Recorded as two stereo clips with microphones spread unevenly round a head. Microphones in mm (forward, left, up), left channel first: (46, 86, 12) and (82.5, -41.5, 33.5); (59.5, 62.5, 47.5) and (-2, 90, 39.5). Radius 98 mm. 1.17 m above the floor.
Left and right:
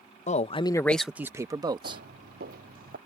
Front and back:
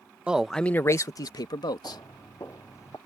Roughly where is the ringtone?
No ringtone in this recording.